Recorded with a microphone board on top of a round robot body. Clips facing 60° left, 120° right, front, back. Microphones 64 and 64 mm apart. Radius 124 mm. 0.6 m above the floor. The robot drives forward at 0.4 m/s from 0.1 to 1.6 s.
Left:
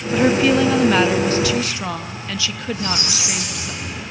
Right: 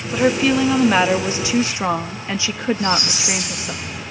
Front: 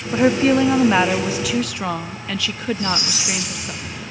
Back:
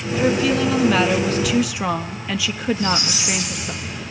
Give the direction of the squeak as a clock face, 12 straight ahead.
10 o'clock.